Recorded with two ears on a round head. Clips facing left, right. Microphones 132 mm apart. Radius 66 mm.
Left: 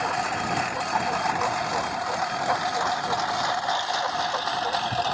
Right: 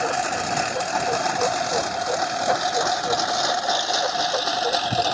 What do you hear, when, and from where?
0.0 s a lawn mower: 55° right (ahead or behind)